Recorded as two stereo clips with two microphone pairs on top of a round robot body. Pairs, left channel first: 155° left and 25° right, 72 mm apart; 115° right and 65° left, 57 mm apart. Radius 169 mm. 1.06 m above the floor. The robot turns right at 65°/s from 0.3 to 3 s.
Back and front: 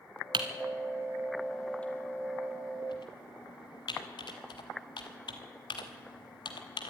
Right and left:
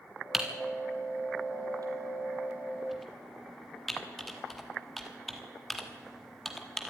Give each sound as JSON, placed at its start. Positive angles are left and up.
{"t": 0.3, "sound": "typing on a keyboard", "azimuth_deg": -15, "distance_m": 1.1}